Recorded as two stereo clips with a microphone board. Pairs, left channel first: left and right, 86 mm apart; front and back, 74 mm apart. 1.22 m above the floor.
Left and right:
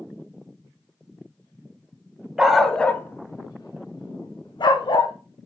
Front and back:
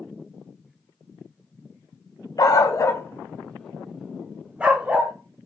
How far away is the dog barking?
About 1.2 m.